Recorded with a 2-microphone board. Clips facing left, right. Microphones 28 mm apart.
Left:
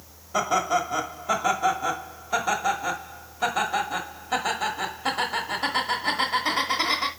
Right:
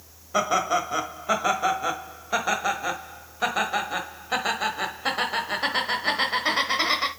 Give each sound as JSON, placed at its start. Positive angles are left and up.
{"t": 0.3, "sound": "laughter", "side_deg": -15, "distance_m": 1.1}